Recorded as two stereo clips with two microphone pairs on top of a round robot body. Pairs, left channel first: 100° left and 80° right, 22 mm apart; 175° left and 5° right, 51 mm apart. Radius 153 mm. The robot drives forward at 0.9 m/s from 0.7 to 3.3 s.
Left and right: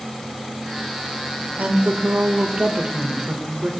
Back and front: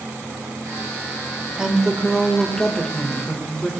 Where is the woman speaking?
75° right, 2.5 m; by 3.7 s 115° right, 2.5 m.